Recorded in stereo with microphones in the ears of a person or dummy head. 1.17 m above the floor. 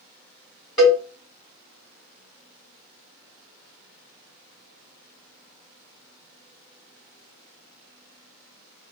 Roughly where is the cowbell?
Centre.